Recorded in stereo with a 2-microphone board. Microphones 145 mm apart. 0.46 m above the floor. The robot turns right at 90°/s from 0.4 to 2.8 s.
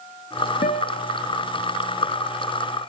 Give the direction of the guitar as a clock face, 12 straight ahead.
9 o'clock.